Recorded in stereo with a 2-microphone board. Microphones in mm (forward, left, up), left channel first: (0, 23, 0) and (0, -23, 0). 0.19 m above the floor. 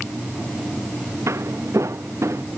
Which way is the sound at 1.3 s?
80° right.